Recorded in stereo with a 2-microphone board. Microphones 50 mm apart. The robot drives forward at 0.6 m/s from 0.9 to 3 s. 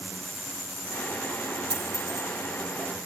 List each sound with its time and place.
1.7 s a dropped coin: 75° right (ahead or behind), 2.5 m; by 2.3 s 85° right, 2.5 m